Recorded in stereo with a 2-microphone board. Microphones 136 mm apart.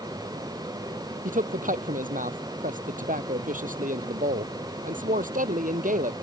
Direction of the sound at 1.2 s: 75° right (ahead or behind).